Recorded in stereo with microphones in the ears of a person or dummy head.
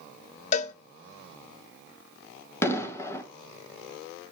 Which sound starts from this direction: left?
A cowbell, at 0.5 s.